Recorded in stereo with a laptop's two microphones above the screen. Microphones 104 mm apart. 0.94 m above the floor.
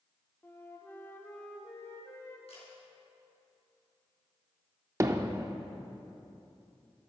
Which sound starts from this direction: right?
Hammering, at 5.0 s.